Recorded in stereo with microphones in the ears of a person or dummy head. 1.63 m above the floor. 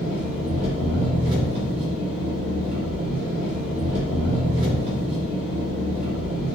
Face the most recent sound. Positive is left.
turn(degrees=-45)  # may be behind; listen again after turning